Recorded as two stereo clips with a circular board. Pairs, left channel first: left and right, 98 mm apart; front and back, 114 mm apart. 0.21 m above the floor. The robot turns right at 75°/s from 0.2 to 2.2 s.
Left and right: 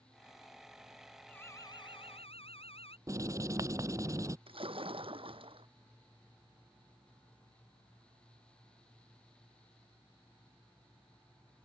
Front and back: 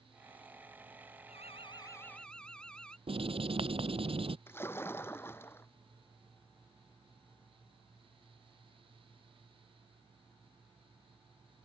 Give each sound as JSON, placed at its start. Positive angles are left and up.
{"t": 1.3, "sound": "an alarm", "azimuth_deg": 15}
{"t": 3.1, "sound": "writing", "azimuth_deg": -145}
{"t": 4.5, "sound": "a splash", "azimuth_deg": -70}